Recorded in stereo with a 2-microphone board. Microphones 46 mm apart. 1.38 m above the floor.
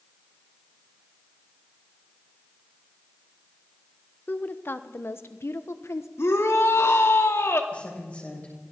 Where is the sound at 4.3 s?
40° left (ahead or behind), 1.1 m; by 6.1 s 75° left (ahead or behind), 1.4 m.